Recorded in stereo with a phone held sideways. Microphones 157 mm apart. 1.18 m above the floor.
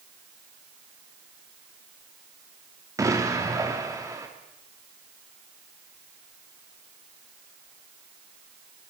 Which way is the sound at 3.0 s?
20° right (ahead or behind).